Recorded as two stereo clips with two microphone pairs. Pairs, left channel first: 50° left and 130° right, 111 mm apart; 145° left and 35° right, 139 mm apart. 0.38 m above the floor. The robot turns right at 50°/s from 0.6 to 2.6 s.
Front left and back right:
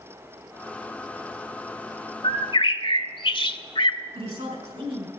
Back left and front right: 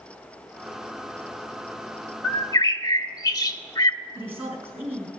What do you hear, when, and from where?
2.2 s a bird: 70° left, 0.5 m; by 4.0 s 85° left, 0.5 m
4.2 s a woman speaking: 110° right, 3.5 m